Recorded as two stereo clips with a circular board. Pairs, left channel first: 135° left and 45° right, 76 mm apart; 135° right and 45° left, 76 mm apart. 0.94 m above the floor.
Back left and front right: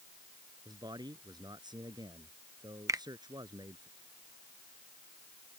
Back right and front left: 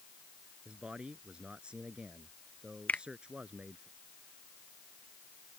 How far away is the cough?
I don't hear a cough.